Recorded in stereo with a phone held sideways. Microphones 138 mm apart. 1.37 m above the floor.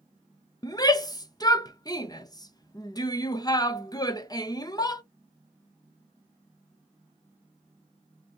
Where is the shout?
30° left (ahead or behind), 0.6 m.